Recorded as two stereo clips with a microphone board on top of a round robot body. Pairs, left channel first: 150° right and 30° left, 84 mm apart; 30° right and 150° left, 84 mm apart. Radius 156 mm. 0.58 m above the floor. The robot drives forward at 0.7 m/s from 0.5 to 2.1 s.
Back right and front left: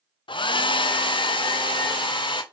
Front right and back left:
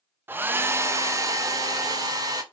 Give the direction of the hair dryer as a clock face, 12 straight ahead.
5 o'clock.